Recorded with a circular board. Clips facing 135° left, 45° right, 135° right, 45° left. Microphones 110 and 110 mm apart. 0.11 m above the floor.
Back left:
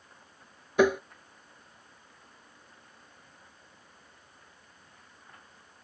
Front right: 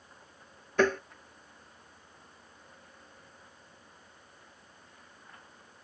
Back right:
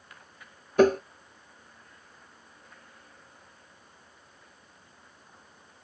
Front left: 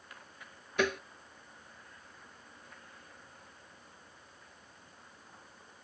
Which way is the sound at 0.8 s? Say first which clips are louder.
Back left 3 dB, back right 12 dB; 150° right.